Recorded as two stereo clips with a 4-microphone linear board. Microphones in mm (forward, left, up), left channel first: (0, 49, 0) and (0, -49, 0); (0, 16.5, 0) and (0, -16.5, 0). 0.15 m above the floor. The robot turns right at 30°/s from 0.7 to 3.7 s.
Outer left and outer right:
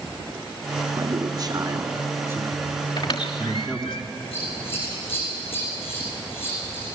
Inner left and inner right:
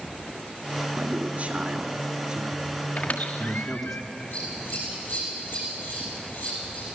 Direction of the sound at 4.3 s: 65° left (ahead or behind).